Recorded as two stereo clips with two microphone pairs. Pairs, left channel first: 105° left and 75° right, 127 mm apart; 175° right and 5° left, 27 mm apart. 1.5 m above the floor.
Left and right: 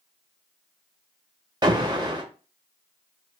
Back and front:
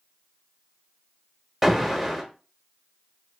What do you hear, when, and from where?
1.6 s an alarm: 75° right, 0.5 m